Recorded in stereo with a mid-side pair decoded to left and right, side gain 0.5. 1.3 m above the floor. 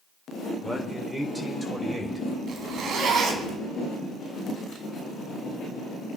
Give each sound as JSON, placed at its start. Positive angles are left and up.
{"t": 0.6, "sound": "a man speaking", "azimuth_deg": -5, "distance_m": 4.5}
{"t": 2.5, "sound": "a zipper", "azimuth_deg": -55, "distance_m": 3.5}